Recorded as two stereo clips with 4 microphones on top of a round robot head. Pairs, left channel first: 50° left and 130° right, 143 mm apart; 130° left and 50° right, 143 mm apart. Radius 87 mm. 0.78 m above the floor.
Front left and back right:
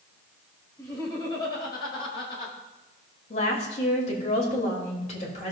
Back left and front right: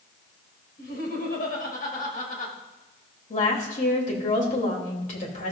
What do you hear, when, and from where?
0.8 s laughter: 115° left, 5 m; by 2.5 s 100° left, 5 m
3.3 s a woman speaking: 95° left, 3 m